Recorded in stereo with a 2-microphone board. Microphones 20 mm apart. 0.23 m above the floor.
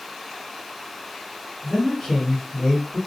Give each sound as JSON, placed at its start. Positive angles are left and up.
{"t": 1.6, "sound": "a man speaking", "side_deg": 30, "distance_m": 1.7}